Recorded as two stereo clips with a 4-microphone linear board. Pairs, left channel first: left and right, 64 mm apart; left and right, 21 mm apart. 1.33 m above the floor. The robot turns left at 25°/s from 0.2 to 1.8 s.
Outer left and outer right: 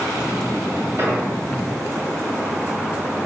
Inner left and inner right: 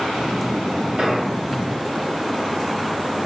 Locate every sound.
1.0 s an explosion: 50° right (ahead or behind), 4 m; by 1.3 s 40° right (ahead or behind), 4 m